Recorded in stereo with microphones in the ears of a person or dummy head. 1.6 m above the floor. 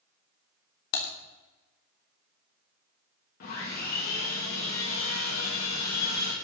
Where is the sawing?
40° left (ahead or behind), 2.5 m.